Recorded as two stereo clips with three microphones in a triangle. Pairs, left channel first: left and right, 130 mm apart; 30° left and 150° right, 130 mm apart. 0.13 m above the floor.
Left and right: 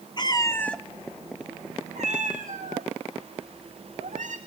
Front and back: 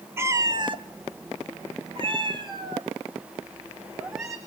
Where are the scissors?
No scissors in this recording.